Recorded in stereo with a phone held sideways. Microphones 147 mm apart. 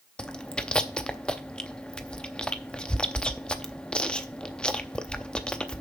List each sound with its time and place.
0.2 s chewing: 5° left (ahead or behind), 0.6 m